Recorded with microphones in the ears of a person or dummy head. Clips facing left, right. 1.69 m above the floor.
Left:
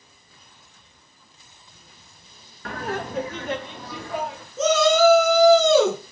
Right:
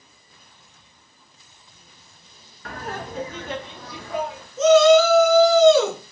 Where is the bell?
I don't hear a bell.